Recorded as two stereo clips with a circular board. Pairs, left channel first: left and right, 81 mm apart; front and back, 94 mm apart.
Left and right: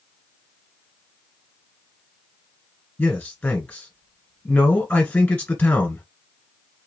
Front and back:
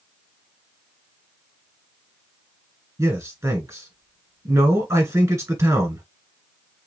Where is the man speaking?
155° left, 1.7 m.